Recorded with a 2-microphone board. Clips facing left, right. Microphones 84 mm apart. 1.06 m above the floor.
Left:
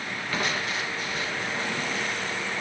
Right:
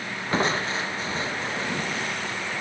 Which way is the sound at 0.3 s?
30° right (ahead or behind).